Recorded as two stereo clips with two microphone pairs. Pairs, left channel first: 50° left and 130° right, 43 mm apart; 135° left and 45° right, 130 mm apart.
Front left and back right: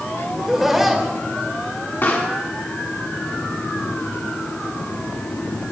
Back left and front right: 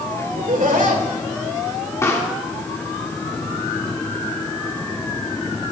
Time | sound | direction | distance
0.3 | laughter | 50° right | 2 m
2.0 | a pop | 70° left | 1.6 m